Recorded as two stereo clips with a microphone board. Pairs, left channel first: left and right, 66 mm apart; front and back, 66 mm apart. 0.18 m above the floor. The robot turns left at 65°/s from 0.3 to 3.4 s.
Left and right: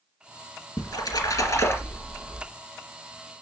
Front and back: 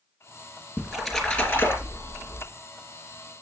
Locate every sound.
0.8 s a splash: 110° left, 2.5 m; by 2.4 s straight ahead, 2.5 m